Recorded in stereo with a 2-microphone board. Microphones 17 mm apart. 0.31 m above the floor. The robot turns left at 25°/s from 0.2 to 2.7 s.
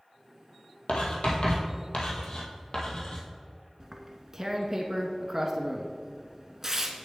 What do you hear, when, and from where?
0.9 s writing: 85° left, 1.7 m; by 3.2 s 50° left (ahead or behind), 1.7 m
3.8 s tearing paper: 20° right (ahead or behind), 0.9 m